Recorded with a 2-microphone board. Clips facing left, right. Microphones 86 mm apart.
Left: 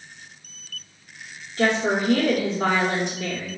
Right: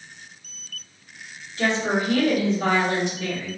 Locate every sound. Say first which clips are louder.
1.6 s a woman speaking: left 2 dB; 50° left (ahead or behind), 1.0 m